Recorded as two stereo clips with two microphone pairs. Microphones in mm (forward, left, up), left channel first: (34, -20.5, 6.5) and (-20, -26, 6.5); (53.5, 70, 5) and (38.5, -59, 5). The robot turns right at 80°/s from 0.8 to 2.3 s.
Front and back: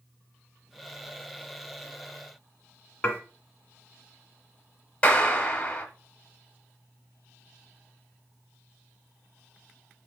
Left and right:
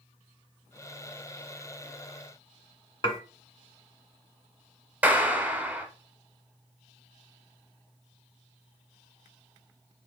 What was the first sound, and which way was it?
Dishes clattering, 55° left.